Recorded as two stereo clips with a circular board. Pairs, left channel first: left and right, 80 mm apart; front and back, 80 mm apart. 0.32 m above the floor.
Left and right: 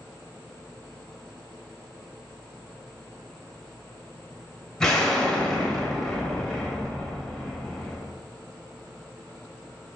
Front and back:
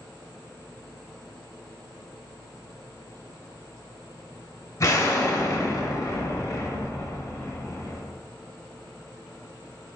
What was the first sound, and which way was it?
An explosion, 10° left.